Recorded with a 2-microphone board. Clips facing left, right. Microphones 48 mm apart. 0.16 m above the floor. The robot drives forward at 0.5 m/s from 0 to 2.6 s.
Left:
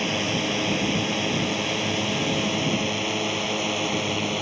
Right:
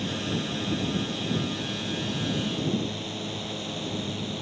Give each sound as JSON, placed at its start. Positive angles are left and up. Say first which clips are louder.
{"t": 0.0, "sound": "a drone", "louder": "left 5 dB", "side_deg": 70}